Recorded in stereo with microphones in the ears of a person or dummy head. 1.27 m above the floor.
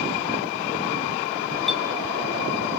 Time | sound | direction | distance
1.7 | a clink | centre (ahead or behind) | 2.5 m